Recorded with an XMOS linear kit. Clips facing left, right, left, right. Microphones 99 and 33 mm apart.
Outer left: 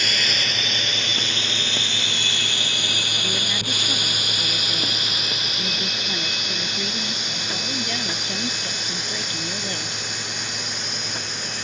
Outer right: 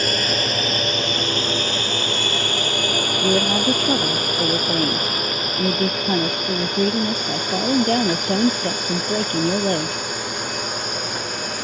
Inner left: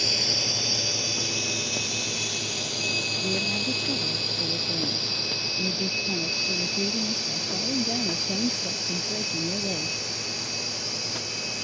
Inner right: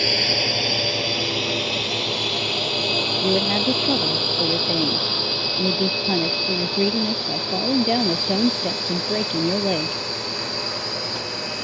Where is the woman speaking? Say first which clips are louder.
Outer right 14 dB, inner right 7 dB; 50° right (ahead or behind).